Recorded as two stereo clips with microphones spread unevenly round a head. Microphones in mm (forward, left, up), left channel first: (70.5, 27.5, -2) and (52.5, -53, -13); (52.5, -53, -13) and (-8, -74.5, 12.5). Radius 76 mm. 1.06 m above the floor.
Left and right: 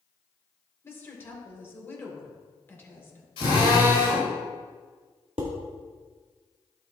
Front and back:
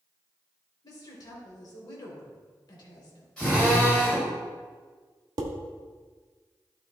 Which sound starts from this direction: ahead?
A woman speaking, at 0.8 s.